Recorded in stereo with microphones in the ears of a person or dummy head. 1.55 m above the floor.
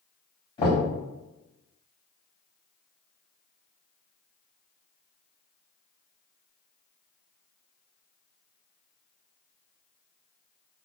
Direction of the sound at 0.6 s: 20° left (ahead or behind).